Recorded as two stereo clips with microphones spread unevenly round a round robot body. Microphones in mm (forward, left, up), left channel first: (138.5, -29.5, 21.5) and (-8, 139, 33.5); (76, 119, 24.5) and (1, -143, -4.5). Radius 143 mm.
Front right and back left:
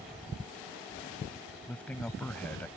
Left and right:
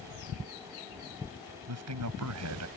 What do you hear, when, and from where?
1.7 s a man speaking: 135° right